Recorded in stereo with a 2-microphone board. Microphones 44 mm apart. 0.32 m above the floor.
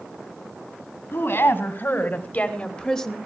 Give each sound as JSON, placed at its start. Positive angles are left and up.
{"t": 1.1, "sound": "a woman speaking", "side_deg": 60, "distance_m": 3.0}